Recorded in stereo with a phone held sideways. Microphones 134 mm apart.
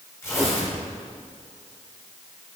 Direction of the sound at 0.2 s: 20° left (ahead or behind).